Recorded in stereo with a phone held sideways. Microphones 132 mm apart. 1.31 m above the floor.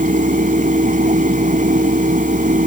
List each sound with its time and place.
0.0 s a fan: 90° right